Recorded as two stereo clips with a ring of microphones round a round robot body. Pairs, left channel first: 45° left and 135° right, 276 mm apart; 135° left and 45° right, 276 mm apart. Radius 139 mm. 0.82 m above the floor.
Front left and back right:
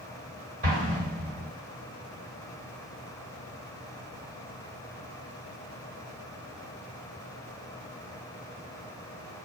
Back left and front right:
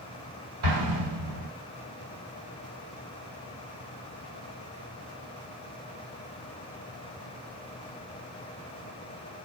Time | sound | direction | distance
0.6 | an explosion | 70° right | 1.3 m